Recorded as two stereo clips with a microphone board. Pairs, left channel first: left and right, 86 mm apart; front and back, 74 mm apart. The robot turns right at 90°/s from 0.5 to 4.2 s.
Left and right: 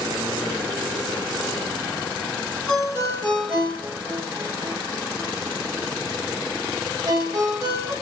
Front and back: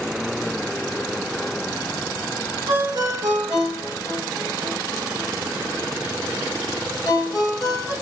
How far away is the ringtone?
About 3.5 m.